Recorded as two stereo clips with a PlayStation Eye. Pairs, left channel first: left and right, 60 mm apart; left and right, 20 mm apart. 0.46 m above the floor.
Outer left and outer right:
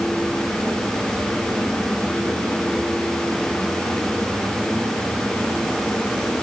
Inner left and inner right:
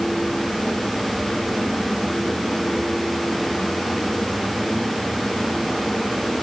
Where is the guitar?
I don't hear a guitar.